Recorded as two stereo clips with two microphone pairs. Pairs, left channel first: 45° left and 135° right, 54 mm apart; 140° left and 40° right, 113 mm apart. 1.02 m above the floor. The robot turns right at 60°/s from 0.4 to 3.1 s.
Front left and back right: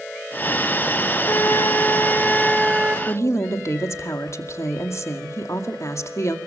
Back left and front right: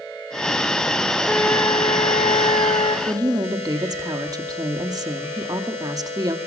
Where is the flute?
65° left, 3.5 m; by 3.0 s 165° left, 3.5 m.